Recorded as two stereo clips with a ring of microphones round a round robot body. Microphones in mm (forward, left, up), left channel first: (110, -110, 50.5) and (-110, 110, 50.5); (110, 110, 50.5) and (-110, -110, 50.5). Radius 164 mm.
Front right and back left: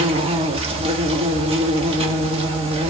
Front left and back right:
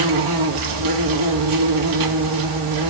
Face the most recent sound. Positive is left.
turn(degrees=-155)